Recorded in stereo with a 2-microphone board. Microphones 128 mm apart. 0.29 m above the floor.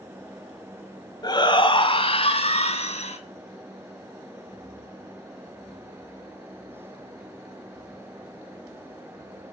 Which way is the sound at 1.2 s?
35° left (ahead or behind).